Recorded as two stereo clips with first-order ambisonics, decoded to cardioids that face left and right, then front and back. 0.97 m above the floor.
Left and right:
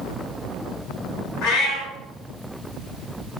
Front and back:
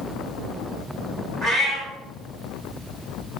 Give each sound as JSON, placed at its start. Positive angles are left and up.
{"t": 1.4, "sound": "a cat meowing", "azimuth_deg": 115, "distance_m": 1.2}